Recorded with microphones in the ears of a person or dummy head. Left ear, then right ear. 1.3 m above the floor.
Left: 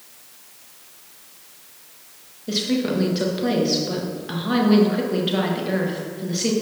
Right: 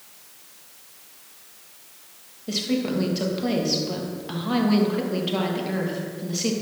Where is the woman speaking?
Centre (ahead or behind), 1.4 m.